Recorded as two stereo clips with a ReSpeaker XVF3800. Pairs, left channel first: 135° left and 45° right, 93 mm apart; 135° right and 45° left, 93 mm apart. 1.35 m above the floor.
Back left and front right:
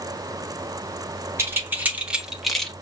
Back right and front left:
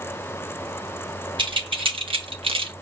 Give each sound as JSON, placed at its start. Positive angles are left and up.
{"t": 1.4, "sound": "keys jangling", "azimuth_deg": 20, "distance_m": 1.4}